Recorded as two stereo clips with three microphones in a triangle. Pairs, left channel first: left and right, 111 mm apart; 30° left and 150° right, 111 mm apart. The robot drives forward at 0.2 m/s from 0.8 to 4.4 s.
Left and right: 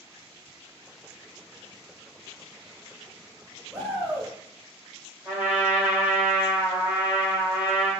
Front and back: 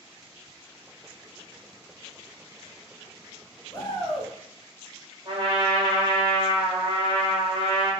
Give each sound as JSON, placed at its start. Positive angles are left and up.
{"t": 3.7, "sound": "a shout", "azimuth_deg": 10, "distance_m": 1.3}
{"t": 5.2, "sound": "a trumpet", "azimuth_deg": -160, "distance_m": 1.8}